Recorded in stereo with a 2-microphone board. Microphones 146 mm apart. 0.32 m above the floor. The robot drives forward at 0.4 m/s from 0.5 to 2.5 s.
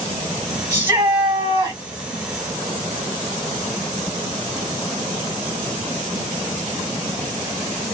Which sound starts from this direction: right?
A shout, at 0.7 s.